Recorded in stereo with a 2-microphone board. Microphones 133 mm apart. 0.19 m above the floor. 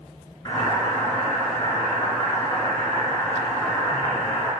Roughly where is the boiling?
Left.